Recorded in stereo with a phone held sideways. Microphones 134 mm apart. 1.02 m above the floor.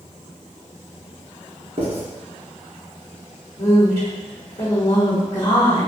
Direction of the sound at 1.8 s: 45° right (ahead or behind).